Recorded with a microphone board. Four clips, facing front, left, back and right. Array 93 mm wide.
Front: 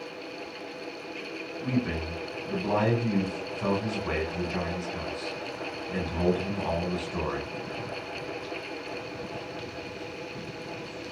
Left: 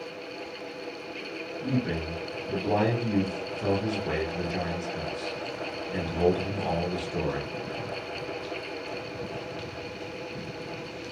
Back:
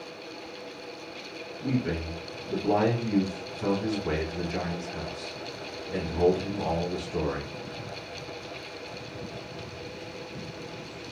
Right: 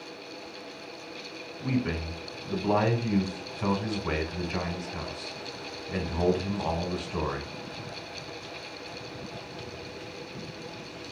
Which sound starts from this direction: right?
A man speaking, at 1.6 s.